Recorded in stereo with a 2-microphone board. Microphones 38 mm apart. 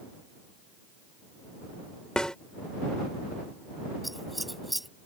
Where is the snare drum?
20° left (ahead or behind).